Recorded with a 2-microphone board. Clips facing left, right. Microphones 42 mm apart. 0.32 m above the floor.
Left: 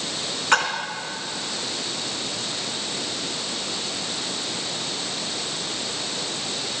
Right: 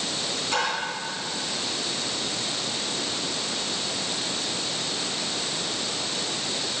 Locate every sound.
0.5 s a splash: 60° left (ahead or behind), 3 m